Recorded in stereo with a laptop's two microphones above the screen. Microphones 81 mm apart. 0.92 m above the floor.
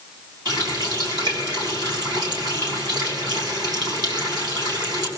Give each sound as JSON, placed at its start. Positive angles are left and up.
{"t": 0.5, "sound": "a running tap", "side_deg": -55, "distance_m": 6.0}